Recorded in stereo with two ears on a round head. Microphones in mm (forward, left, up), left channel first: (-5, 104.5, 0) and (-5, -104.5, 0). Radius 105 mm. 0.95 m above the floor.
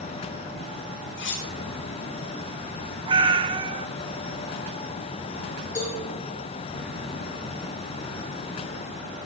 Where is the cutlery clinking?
50° left (ahead or behind), 3 m.